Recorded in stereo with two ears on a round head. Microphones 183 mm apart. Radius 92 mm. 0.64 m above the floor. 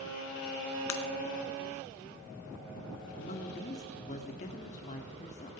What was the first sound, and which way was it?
Breaking glass, 75° left (ahead or behind).